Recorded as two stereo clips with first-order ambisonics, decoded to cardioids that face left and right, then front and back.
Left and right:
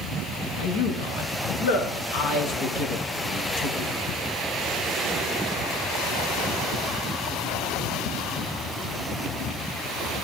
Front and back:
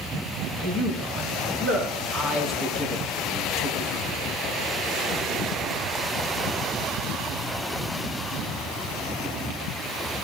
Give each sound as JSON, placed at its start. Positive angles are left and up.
{"t": 0.6, "sound": "a man speaking", "azimuth_deg": 100, "distance_m": 9.0}